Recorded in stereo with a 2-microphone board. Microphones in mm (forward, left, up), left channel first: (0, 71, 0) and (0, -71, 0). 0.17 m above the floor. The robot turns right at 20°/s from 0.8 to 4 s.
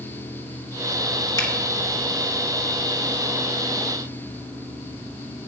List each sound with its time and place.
1.4 s a finger snap: 25° left (ahead or behind), 1.1 m